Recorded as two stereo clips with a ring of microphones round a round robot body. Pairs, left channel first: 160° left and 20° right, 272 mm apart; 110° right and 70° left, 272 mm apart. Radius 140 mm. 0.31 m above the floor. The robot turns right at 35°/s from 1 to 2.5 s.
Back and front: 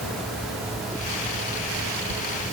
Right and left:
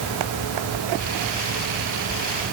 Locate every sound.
Only background noise.